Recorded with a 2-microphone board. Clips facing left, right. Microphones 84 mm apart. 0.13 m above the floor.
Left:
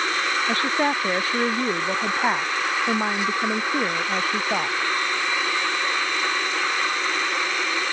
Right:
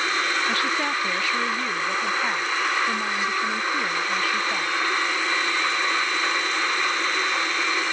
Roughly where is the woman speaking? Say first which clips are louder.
Left 2 dB; left.